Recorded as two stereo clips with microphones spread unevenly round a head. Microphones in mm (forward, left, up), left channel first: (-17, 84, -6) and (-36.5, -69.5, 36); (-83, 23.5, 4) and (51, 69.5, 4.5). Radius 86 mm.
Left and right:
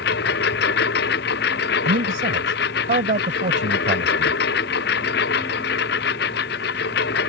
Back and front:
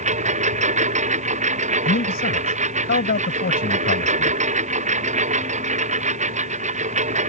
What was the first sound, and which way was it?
A lawn mower, 55° left.